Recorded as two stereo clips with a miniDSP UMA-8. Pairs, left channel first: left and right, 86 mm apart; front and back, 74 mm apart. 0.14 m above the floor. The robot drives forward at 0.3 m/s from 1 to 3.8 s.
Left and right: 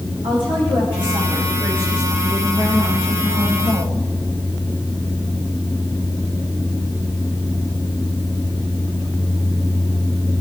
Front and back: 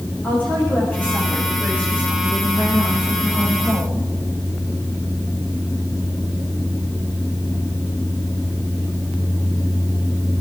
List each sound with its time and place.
0.2 s a woman speaking: 70° right, 9 m; by 4.0 s 75° right, 9 m